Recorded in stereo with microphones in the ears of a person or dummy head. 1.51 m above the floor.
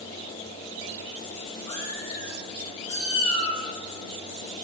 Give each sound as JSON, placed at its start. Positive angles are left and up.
{"t": 1.7, "sound": "a cat meowing", "side_deg": 30, "distance_m": 0.9}